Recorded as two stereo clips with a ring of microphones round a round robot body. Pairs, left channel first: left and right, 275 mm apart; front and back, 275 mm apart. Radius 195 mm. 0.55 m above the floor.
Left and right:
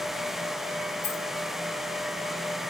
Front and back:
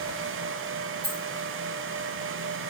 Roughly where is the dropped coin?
Behind left.